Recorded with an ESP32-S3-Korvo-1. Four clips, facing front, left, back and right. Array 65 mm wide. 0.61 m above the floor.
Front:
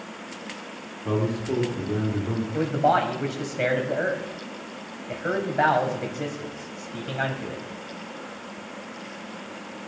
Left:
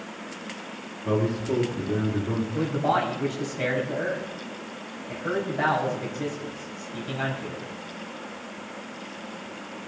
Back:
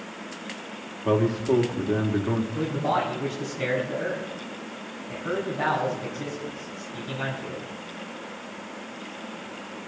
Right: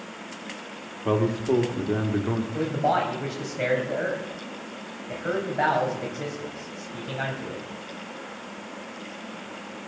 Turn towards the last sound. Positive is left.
turn(degrees=-15)